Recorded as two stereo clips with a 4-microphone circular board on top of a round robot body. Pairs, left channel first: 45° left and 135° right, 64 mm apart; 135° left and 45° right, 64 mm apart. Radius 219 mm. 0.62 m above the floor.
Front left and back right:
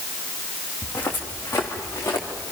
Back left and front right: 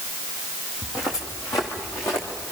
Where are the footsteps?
105° left, 2.5 m; by 2.5 s 95° left, 3.5 m.